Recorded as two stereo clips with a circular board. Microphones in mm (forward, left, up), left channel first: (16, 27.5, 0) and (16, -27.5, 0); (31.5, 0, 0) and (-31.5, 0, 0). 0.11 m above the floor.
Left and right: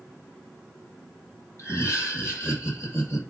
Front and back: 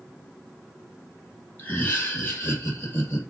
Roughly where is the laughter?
Ahead left.